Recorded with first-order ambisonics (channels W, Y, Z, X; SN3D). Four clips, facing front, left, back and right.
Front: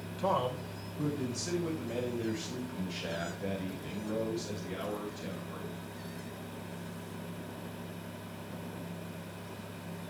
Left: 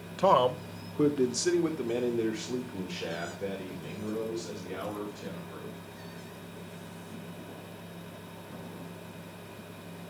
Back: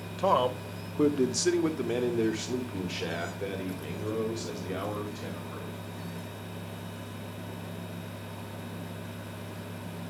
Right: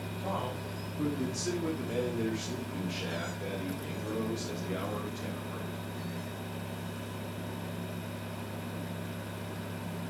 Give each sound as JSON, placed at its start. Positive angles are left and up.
{"t": 0.2, "sound": "a man speaking", "azimuth_deg": 115, "distance_m": 1.1}